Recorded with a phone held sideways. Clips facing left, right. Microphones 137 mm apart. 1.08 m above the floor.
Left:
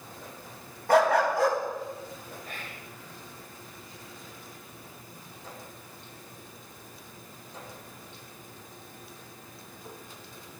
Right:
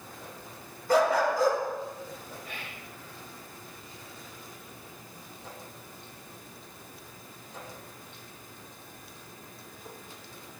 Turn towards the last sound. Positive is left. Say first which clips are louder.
# left 1 dB
turn(degrees=40)  # may be behind; listen again after turning